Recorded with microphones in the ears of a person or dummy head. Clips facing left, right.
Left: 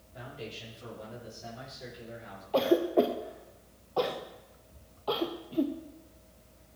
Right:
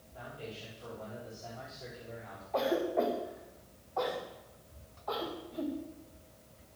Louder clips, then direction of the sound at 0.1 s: Left 2 dB; 30° left (ahead or behind).